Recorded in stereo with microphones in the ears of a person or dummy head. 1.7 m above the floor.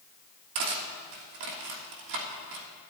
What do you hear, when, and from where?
0.6 s cutlery clinking: 55° right (ahead or behind), 1.4 m